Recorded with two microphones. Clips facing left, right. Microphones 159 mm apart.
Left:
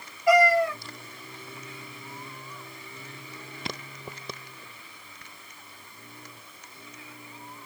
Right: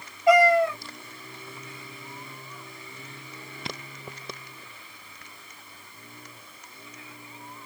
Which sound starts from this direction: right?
A cat meowing, at 0.3 s.